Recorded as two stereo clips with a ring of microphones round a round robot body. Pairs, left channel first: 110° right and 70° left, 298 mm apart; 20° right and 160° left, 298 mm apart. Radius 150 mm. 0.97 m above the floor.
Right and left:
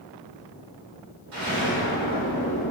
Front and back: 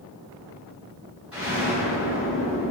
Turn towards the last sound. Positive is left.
turn(degrees=70)